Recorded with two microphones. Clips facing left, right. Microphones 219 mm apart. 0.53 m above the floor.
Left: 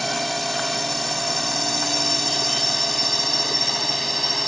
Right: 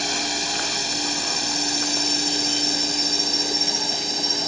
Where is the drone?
60° left (ahead or behind); by 4.5 s 65° left (ahead or behind).